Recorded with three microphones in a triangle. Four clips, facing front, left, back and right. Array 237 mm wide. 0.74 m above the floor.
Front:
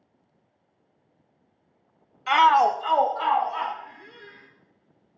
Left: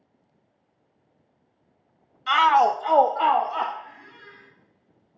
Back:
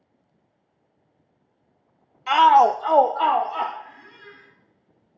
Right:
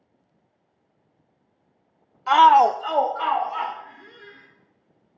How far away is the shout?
About 0.6 m.